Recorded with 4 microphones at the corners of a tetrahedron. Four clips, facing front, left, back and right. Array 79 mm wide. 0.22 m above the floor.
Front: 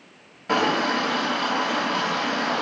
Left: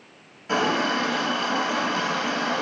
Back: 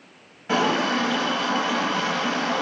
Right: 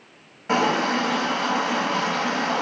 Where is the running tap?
70° right, 0.7 m.